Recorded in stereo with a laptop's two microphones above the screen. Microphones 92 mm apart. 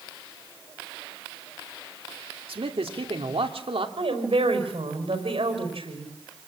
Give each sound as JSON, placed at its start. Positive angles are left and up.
{"t": 2.5, "sound": "a man speaking", "side_deg": -75, "distance_m": 2.5}
{"t": 4.0, "sound": "a woman speaking", "side_deg": -80, "distance_m": 5.0}